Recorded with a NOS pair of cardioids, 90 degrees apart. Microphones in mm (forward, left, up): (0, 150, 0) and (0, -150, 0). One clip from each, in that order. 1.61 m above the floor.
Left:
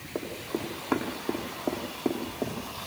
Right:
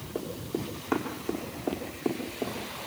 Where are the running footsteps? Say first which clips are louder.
Left 1 dB; 15° left, 6.5 m.